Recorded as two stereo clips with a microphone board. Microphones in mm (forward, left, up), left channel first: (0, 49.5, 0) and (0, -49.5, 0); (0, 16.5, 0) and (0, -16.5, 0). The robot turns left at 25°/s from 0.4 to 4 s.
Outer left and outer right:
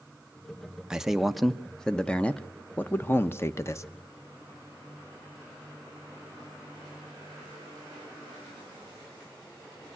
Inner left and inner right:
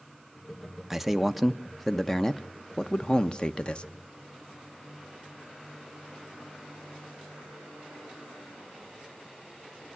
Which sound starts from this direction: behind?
A man speaking, at 0.9 s.